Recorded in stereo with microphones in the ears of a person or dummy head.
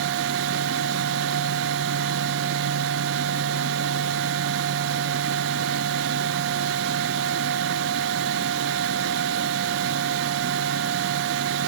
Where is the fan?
65° right (ahead or behind), 0.7 m.